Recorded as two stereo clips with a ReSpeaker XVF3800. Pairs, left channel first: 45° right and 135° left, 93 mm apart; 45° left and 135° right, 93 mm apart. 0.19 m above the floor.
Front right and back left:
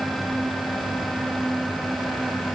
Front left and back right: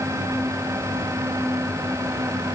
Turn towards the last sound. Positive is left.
No sound to turn to.